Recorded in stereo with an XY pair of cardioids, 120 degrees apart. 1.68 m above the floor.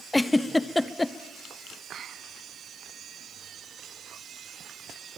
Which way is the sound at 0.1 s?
10° left.